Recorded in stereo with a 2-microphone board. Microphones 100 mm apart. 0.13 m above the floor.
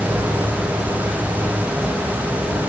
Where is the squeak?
I don't hear a squeak.